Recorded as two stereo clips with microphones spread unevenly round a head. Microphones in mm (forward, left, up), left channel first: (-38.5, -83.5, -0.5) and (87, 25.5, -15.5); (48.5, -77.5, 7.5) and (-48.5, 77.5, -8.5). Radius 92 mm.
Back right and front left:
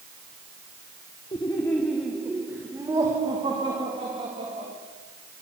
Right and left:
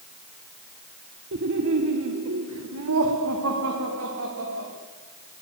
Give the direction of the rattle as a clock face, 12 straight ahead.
I don't hear a rattle.